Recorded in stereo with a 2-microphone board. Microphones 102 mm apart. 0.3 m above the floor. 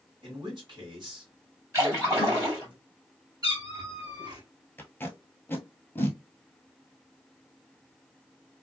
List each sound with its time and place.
0.2 s a man speaking: 50° right (ahead or behind), 1.8 m
1.7 s a splash: 30° right (ahead or behind), 2 m
3.4 s a cat meowing: 40° right (ahead or behind), 1.7 m
4.8 s tape being pulled: 20° left (ahead or behind), 0.8 m